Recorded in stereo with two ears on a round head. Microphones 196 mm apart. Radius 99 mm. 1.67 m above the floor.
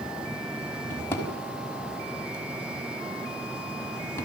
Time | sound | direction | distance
0.9 | a drawer | 15° left (ahead or behind) | 5.5 m